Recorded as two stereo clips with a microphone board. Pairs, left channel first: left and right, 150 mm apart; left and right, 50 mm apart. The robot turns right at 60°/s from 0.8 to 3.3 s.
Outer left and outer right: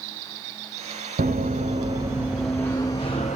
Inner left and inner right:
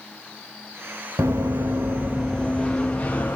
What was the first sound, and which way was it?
Running footsteps, 75° right (ahead or behind).